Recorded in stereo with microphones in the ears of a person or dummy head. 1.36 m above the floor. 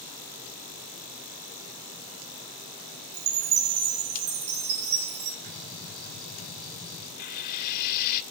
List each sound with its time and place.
3.1 s a chime: 55° right (ahead or behind), 3 m
5.5 s a gunshot: centre (ahead or behind), 8.5 m
7.2 s frying: 55° left (ahead or behind), 2 m